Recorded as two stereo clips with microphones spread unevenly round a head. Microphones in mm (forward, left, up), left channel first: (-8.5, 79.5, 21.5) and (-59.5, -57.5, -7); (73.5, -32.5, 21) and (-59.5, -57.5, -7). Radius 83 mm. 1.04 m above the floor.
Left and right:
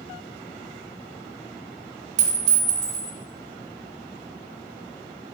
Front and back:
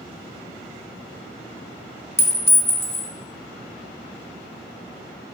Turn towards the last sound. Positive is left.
turn(degrees=-60)